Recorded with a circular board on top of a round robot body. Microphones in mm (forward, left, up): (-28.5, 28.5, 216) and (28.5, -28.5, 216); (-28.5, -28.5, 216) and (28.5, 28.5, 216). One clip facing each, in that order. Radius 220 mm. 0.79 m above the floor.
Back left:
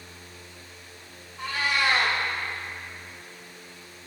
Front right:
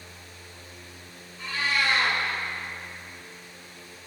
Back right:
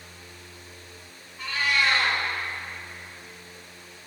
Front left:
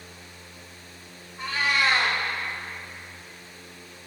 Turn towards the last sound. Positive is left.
turn(degrees=105)